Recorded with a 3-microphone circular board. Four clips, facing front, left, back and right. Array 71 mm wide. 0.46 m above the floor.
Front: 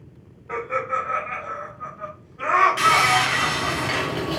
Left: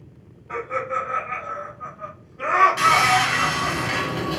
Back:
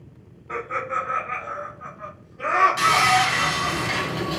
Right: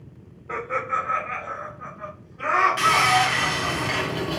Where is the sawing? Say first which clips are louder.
Left 2 dB, even; 25° right, 1.0 m.